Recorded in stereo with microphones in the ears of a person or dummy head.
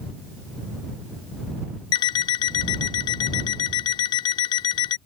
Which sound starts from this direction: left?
An alarm clock, at 1.9 s.